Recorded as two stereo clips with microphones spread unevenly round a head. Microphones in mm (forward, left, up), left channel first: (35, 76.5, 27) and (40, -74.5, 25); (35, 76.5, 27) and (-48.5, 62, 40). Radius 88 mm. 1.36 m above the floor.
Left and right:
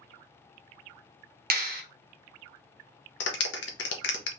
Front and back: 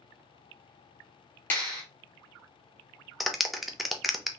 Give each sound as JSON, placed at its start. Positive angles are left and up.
{"t": 1.5, "sound": "a clap", "azimuth_deg": -65, "distance_m": 0.7}
{"t": 3.2, "sound": "a clap", "azimuth_deg": 105, "distance_m": 0.7}